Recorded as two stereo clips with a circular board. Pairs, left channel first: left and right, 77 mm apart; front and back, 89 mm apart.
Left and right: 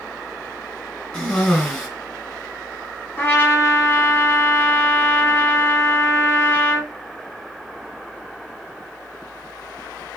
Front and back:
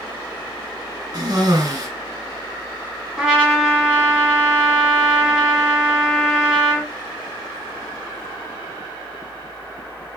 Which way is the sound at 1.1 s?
165° left.